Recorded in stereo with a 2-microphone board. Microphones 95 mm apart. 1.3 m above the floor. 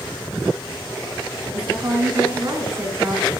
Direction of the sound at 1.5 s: 40° right (ahead or behind).